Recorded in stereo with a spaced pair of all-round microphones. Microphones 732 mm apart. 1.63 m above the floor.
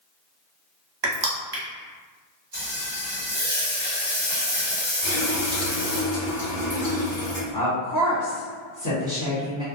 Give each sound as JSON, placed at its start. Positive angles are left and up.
{"t": 1.0, "sound": "crushing", "side_deg": -35, "distance_m": 0.7}
{"t": 2.5, "sound": "frying", "side_deg": 15, "distance_m": 1.3}
{"t": 5.0, "sound": "a running tap", "side_deg": 55, "distance_m": 1.4}
{"t": 7.5, "sound": "a woman speaking", "side_deg": 25, "distance_m": 1.1}